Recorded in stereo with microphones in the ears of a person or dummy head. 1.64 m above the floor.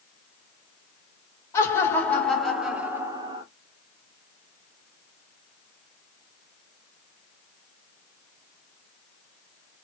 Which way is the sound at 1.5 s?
15° left (ahead or behind).